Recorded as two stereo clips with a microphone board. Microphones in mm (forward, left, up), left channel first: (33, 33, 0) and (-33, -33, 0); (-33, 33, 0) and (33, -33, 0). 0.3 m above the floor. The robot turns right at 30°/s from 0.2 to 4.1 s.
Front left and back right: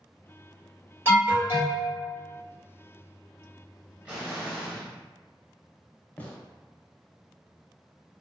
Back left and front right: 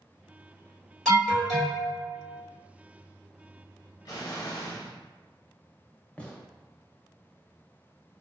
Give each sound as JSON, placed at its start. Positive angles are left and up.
{"t": 1.1, "sound": "an alarm", "azimuth_deg": -145, "distance_m": 1.8}
{"t": 4.0, "sound": "an explosion", "azimuth_deg": 150, "distance_m": 0.8}
{"t": 6.2, "sound": "a gunshot", "azimuth_deg": 85, "distance_m": 0.5}